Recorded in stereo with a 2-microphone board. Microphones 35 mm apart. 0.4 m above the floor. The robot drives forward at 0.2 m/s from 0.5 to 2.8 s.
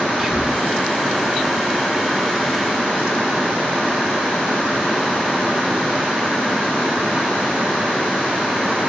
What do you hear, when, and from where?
0.2 s whispering: 5° right (ahead or behind), 1.2 m